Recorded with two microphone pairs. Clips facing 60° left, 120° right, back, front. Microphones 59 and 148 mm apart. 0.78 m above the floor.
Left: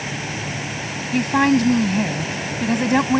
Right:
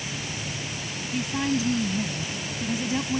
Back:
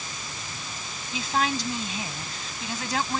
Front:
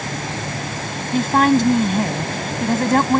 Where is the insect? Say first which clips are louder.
Left 7 dB, front 14 dB; 20° left.